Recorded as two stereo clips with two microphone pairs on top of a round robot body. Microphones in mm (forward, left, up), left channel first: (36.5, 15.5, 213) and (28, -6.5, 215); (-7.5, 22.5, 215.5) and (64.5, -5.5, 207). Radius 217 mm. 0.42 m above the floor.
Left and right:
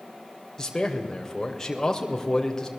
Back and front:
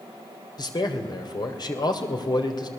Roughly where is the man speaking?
Behind left.